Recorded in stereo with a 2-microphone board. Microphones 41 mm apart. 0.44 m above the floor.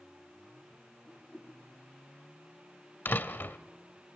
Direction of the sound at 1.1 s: 15° left (ahead or behind).